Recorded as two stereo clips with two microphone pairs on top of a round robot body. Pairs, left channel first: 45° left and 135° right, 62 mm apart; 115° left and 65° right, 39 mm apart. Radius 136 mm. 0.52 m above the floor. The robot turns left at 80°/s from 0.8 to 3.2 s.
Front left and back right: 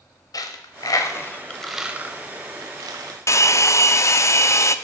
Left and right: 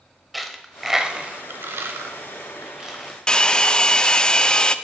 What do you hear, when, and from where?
0.3 s a dropped coin: 25° left, 0.9 m; by 3.6 s 165° right, 0.9 m
3.3 s a hair dryer: 55° left, 0.7 m